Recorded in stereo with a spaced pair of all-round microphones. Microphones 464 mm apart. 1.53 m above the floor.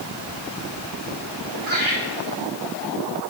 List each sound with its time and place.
1.7 s laughter: 80° right, 4 m